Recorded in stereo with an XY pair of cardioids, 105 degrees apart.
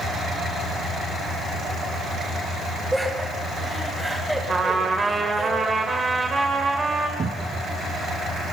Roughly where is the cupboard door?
Ahead right.